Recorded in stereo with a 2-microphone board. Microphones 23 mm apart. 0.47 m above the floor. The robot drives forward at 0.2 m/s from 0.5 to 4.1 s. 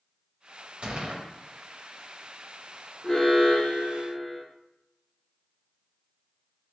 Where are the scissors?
I don't hear scissors.